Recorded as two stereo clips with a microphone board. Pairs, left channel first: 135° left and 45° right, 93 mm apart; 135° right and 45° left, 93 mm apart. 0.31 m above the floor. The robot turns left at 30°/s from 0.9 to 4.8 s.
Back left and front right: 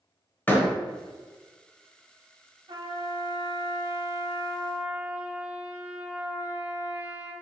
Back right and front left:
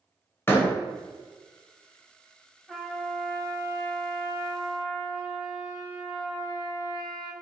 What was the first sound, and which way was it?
A door slam, 175° right.